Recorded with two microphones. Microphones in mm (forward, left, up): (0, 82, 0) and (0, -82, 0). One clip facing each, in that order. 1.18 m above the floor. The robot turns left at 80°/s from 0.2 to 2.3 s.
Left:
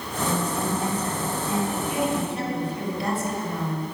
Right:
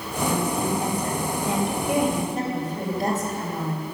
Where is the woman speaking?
25° left, 5 m; by 3.8 s 135° right, 5 m.